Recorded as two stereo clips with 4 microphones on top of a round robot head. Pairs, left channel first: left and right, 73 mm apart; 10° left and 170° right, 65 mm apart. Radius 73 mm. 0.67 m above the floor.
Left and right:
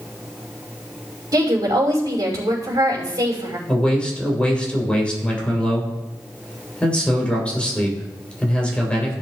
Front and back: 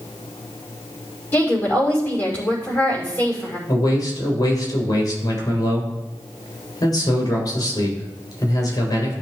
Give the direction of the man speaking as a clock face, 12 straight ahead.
11 o'clock.